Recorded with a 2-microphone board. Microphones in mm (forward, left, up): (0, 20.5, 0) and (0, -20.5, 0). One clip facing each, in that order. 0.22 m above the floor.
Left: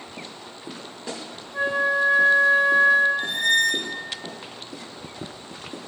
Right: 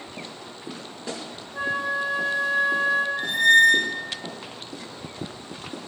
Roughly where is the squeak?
Right.